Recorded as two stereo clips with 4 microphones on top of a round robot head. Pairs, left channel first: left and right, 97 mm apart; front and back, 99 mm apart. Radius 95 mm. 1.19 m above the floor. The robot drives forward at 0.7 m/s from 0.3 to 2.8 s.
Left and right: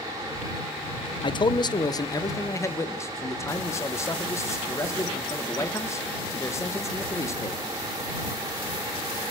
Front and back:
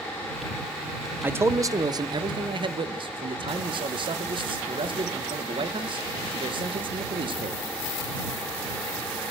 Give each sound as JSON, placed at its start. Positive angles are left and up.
{"t": 1.2, "sound": "a man speaking", "azimuth_deg": 110, "distance_m": 1.1}